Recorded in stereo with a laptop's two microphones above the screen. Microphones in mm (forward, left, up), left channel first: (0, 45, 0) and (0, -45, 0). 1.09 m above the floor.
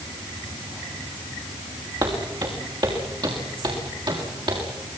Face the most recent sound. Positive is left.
turn(degrees=-65)  # may be behind; listen again after turning